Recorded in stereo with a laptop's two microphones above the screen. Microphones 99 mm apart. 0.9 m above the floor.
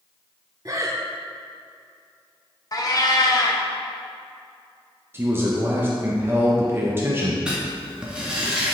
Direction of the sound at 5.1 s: 25° right (ahead or behind).